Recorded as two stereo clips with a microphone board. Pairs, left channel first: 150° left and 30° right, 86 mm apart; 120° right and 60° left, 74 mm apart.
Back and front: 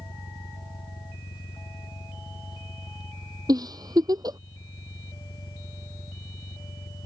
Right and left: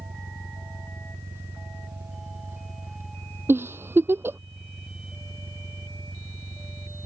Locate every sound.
0.0 s an engine running: 115° left
3.5 s a giggle: 5° left